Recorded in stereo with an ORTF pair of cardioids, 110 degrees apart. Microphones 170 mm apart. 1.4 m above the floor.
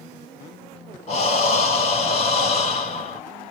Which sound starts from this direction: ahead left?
Breathing, at 1.1 s.